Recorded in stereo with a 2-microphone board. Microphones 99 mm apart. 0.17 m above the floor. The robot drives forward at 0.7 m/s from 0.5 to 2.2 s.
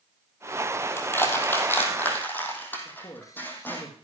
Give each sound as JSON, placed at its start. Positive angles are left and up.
{"t": 1.0, "sound": "crushing", "side_deg": 25, "distance_m": 3.0}
{"t": 2.9, "sound": "a man speaking", "side_deg": 35, "distance_m": 3.5}